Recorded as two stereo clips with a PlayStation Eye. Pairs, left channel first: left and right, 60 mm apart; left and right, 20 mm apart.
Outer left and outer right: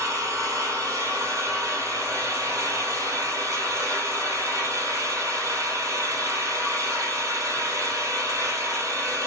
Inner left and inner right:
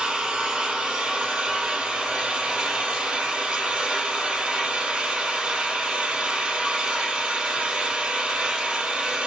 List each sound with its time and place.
0.0 s an engine running: 60° right (ahead or behind), 1.8 m